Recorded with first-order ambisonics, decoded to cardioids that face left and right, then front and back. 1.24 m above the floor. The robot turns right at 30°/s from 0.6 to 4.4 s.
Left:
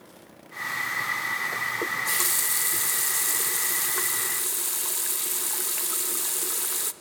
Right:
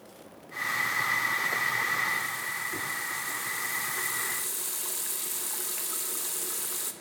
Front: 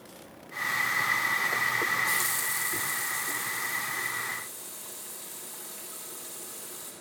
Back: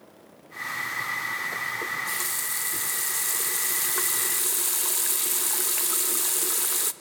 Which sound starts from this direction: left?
A running tap, at 1.8 s.